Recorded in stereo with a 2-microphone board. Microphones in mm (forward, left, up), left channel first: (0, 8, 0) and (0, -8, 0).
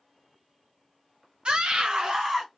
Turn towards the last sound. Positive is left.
turn(degrees=-25)  # may be behind; listen again after turning